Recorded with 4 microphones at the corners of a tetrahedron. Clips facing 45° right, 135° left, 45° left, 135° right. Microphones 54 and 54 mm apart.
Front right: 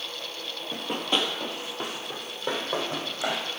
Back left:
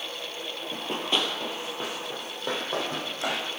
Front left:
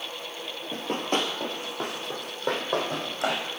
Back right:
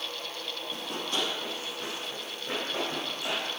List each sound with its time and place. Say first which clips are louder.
0.7 s running footsteps: front right 1 dB, front left 7 dB; 40° left, 1.1 m; by 3.5 s 45° left, 3 m